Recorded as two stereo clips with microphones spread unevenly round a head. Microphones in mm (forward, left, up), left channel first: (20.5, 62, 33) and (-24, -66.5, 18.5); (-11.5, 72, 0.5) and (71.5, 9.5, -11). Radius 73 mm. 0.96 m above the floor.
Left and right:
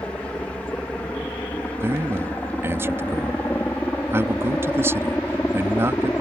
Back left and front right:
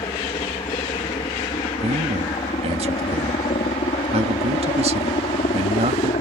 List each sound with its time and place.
0.0 s a helicopter: 150° left
1.8 s a man speaking: 40° right